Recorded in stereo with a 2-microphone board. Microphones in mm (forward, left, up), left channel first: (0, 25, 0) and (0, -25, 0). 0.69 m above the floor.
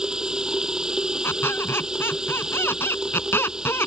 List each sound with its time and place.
0.0 s running water: 15° right (ahead or behind)
1.2 s a squeak: 55° left (ahead or behind)